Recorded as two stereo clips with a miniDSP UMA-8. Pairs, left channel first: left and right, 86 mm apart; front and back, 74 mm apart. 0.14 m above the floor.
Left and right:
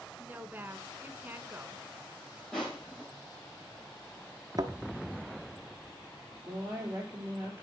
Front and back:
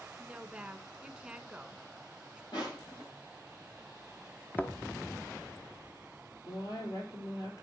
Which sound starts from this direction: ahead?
Crushing, at 2.5 s.